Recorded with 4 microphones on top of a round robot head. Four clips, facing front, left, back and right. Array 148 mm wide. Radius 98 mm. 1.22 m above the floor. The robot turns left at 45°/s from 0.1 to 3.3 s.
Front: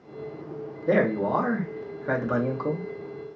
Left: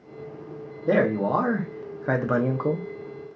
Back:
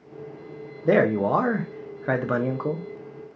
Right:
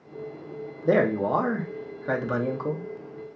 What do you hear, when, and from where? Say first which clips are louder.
0.8 s a man speaking: even, back 3 dB; 160° right, 0.6 m; by 2.9 s 110° left, 0.6 m